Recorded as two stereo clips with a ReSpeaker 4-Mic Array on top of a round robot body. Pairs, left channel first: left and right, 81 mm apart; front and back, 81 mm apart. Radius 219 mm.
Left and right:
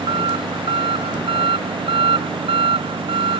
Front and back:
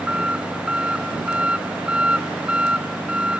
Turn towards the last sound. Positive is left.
turn(degrees=-100)